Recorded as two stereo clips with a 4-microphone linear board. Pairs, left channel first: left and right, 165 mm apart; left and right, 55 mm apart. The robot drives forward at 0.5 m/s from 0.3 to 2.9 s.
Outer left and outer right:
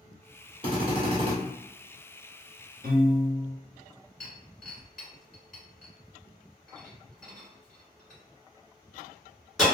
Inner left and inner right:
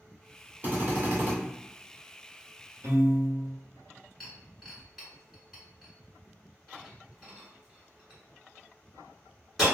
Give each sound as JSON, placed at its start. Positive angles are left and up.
{"t": 0.6, "sound": "a drill", "side_deg": -35, "distance_m": 1.7}
{"t": 2.8, "sound": "a piano", "side_deg": -80, "distance_m": 1.2}
{"t": 4.2, "sound": "breaking glass", "side_deg": 0, "distance_m": 1.9}